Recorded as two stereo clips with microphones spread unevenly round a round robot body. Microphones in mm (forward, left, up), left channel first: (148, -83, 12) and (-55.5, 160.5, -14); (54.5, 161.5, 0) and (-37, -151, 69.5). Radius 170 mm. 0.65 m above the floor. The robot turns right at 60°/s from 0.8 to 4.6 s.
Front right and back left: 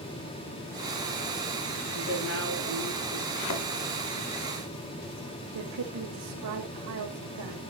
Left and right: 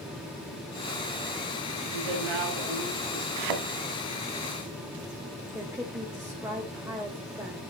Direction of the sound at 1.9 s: 125° right.